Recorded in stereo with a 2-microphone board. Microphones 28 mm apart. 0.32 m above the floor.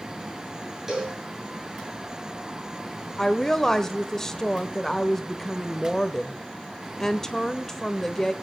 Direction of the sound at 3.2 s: 20° left (ahead or behind).